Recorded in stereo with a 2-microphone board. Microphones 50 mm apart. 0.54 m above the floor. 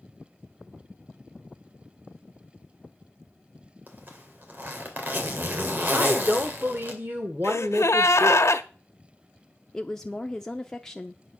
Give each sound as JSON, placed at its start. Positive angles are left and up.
{"t": 3.9, "sound": "a zipper", "side_deg": -40, "distance_m": 2.5}
{"t": 5.9, "sound": "a woman speaking", "side_deg": -45, "distance_m": 1.3}
{"t": 7.4, "sound": "a gasp", "side_deg": 75, "distance_m": 0.8}
{"t": 9.7, "sound": "a woman speaking", "side_deg": 10, "distance_m": 0.7}